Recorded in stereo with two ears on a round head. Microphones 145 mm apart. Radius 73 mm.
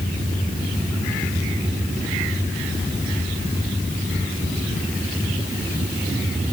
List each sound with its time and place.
Only background noise.